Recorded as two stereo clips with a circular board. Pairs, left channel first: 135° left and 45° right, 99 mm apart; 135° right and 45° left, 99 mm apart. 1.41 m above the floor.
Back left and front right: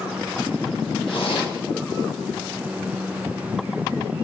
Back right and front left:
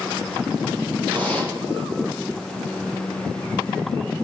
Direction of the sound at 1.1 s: 150° left.